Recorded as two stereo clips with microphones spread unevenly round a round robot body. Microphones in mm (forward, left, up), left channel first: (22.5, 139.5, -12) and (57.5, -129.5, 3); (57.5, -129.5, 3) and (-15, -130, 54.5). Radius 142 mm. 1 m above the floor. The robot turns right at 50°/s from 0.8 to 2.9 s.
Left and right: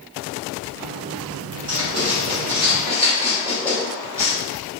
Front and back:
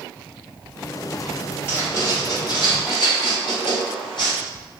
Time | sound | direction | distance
1.7 | writing | 65° right | 1.6 m